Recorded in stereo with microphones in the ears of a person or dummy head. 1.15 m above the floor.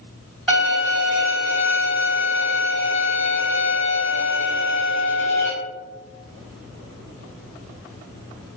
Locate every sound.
0.5 s a violin: centre (ahead or behind), 1.9 m